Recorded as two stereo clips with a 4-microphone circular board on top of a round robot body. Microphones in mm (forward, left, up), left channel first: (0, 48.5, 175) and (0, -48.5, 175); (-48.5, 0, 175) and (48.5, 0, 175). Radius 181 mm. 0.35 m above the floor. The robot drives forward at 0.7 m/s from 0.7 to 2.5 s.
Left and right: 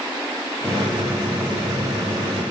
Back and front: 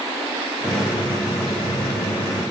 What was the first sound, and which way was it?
Only background noise.